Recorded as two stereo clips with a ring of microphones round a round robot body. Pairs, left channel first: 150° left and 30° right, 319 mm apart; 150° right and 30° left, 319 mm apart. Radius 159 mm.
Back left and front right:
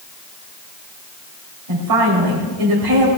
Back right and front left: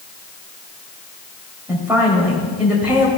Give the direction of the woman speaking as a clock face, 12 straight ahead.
2 o'clock.